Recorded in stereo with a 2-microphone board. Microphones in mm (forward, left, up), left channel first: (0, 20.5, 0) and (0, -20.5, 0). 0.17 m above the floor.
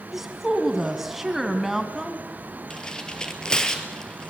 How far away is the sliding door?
No sliding door in this recording.